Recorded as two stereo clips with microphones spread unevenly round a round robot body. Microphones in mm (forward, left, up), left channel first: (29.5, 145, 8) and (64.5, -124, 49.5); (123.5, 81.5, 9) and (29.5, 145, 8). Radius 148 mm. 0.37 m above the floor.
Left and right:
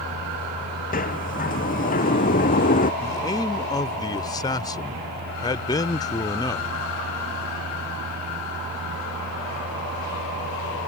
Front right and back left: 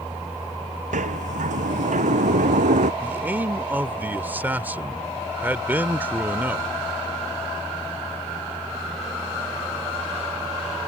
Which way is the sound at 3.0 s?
105° left.